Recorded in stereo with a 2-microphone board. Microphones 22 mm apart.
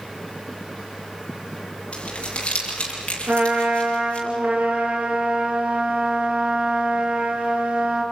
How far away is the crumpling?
About 7.5 m.